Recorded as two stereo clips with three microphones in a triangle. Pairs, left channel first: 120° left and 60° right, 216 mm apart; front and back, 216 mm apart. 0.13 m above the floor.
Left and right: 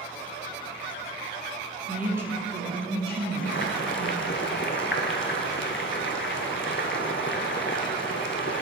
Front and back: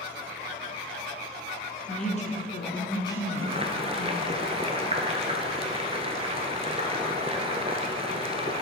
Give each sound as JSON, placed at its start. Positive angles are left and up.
{"t": 1.9, "sound": "a woman speaking", "azimuth_deg": 20, "distance_m": 1.3}
{"t": 3.4, "sound": "boiling", "azimuth_deg": 120, "distance_m": 0.8}